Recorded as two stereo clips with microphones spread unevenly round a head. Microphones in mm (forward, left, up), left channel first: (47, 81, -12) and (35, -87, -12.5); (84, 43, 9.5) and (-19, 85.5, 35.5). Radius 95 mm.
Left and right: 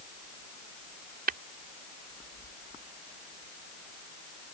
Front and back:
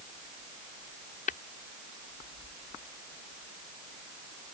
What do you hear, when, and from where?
1.3 s tapping: 60° right